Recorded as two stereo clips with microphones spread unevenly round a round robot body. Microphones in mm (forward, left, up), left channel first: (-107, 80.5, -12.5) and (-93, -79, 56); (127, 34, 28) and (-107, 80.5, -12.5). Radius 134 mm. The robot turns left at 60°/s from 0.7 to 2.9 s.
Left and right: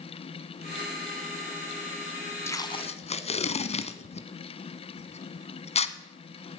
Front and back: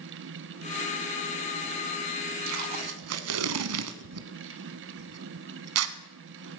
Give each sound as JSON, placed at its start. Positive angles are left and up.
{"t": 2.5, "sound": "tape being pulled", "azimuth_deg": 180, "distance_m": 1.0}